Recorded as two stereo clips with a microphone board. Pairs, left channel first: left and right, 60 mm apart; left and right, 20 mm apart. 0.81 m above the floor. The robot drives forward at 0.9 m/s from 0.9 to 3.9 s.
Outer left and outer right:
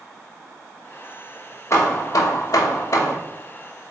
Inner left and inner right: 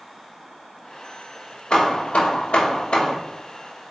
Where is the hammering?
55° left (ahead or behind), 1.1 m.